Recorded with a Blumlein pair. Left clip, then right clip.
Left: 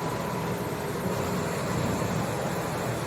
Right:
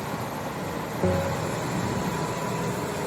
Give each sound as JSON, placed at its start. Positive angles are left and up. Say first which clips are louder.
{"t": 1.0, "sound": "a bell", "louder": "right 6 dB", "azimuth_deg": -30}